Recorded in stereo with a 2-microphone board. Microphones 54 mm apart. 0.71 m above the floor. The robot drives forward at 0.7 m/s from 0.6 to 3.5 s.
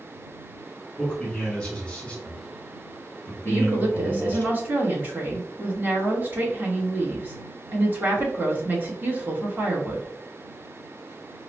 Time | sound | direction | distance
1.0 | a man speaking | 10° left (ahead or behind) | 1.9 m
3.5 | a woman speaking | 35° right (ahead or behind) | 1.0 m